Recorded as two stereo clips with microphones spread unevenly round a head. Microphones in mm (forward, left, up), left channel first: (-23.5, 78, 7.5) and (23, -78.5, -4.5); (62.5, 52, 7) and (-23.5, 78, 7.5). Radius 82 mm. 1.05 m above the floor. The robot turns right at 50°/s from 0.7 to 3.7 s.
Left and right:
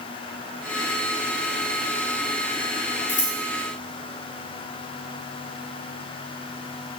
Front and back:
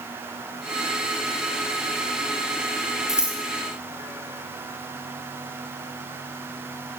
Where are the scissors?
75° left, 5 m; by 3.4 s 90° left, 5 m.